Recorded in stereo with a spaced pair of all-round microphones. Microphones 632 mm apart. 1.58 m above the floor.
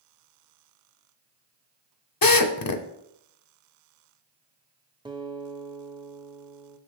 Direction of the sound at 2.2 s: 35° left (ahead or behind).